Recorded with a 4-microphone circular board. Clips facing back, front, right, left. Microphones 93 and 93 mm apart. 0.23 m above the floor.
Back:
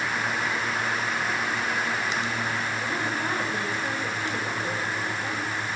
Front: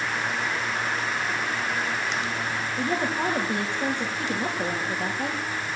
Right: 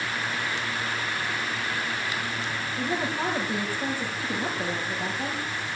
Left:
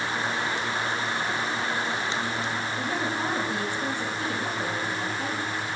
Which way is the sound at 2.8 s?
10° right.